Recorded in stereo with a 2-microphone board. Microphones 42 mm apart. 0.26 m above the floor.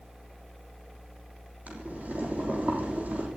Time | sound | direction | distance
1.7 | boiling | 35° right (ahead or behind) | 5 m